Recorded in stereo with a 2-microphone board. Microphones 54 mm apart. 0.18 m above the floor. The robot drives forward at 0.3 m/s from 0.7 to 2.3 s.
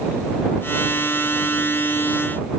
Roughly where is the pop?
No pop in this recording.